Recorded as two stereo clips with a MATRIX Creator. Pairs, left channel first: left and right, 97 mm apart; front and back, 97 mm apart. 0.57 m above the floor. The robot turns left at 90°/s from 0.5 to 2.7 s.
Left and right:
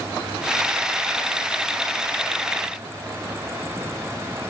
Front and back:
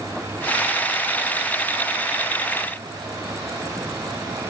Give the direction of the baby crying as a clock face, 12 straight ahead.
I don't hear a baby crying.